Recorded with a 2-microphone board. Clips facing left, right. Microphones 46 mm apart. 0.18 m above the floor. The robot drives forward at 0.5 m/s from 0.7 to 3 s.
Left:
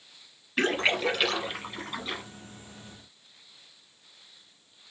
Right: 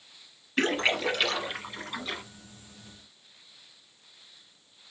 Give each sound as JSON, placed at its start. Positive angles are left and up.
{"t": 0.6, "sound": "a splash", "side_deg": 5, "distance_m": 2.0}